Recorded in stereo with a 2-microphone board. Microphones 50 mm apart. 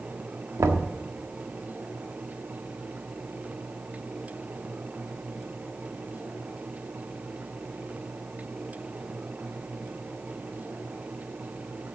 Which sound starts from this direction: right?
Knocking, at 0.6 s.